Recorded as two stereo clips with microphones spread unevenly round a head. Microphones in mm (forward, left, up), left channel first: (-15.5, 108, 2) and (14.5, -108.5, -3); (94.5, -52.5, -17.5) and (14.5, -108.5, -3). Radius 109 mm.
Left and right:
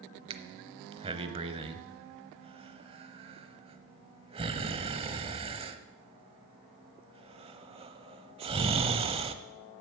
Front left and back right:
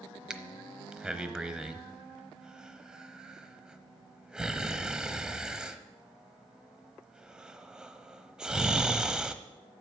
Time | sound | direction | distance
0.3 | breathing | 100° right | 0.9 m